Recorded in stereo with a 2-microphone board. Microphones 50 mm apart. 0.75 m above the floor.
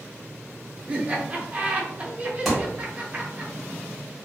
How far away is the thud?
About 0.9 m.